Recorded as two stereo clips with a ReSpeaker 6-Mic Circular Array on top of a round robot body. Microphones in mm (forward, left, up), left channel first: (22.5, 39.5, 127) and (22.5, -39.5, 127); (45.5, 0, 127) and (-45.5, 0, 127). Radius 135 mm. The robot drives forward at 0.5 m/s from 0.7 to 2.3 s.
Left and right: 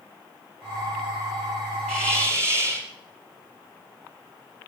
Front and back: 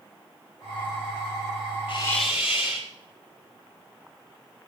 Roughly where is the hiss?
Ahead.